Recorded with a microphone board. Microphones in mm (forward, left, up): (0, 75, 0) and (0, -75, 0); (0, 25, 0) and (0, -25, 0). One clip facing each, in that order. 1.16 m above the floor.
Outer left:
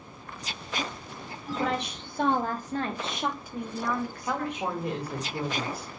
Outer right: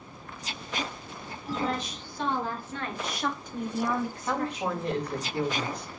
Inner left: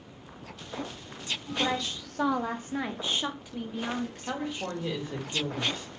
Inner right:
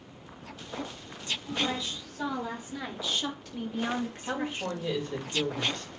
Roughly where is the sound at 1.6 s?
Left.